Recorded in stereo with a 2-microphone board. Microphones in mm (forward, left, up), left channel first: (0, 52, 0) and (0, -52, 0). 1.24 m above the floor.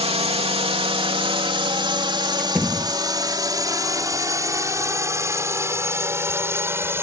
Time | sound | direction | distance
0.0 | a drone | 70° right (ahead or behind) | ?
2.4 | a door slam | 5° right (ahead or behind) | ?